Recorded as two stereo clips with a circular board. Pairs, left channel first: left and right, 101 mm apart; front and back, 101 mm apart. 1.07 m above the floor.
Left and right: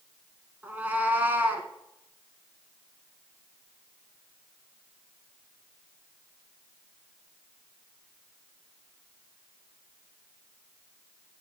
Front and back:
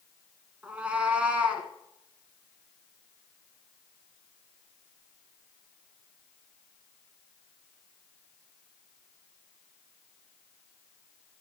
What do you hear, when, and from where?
0.6 s a cat meowing: 125° right, 1.0 m